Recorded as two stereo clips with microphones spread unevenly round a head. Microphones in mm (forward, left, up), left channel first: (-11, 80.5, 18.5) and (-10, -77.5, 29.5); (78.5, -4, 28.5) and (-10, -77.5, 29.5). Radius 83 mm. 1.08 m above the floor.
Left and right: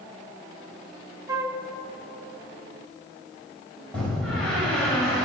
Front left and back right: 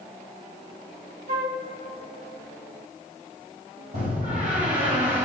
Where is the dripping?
I don't hear dripping.